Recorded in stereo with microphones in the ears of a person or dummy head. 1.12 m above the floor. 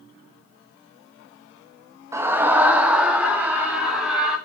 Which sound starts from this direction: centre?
A scream, at 2.1 s.